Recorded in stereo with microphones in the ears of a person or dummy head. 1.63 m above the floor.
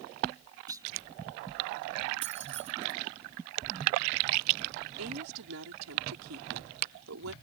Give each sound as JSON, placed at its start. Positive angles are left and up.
{"t": 0.7, "sound": "a clunk", "side_deg": -20}
{"t": 2.2, "sound": "keys jangling", "side_deg": -30}
{"t": 5.0, "sound": "a woman speaking", "side_deg": -80}